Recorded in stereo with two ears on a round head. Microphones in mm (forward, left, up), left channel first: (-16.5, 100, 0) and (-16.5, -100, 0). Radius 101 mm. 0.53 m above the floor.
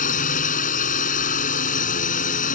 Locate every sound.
0.0 s a drone: 35° left (ahead or behind)